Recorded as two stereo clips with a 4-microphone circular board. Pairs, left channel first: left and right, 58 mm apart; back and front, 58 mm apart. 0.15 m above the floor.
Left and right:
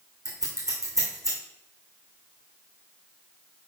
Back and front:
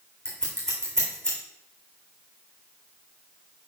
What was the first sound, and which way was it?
Scissors, 100° right.